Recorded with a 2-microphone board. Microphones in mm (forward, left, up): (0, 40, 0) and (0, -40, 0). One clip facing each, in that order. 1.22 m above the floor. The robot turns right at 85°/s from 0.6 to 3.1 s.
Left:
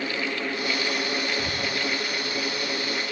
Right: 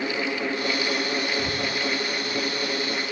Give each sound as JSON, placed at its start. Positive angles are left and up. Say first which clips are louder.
{"t": 1.4, "sound": "breathing", "louder": "right 1 dB", "side_deg": 0, "distance_m": 1.8}